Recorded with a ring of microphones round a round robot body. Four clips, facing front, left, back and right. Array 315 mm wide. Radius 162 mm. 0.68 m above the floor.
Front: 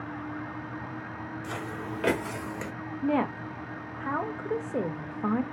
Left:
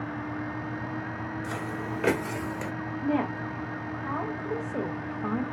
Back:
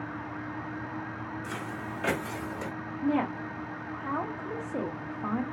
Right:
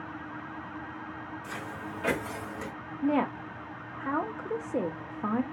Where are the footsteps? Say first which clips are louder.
Left 5 dB, front 1 dB; 55° left, 1.3 m; by 2.7 s 45° left, 0.7 m.